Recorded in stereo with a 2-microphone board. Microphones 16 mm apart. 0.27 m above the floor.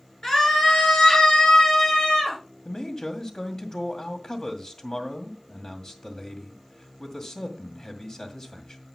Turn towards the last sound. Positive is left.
turn(degrees=40)  # may be behind; listen again after turning